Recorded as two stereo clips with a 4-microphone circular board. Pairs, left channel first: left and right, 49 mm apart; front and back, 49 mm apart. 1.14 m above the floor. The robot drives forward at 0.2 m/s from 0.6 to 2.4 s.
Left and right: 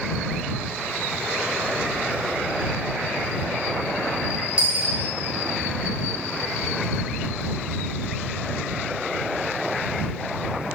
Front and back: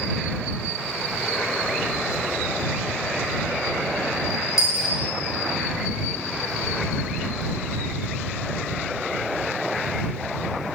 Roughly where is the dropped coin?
Right.